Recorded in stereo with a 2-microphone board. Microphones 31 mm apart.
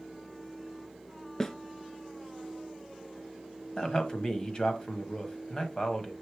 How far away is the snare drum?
About 0.6 m.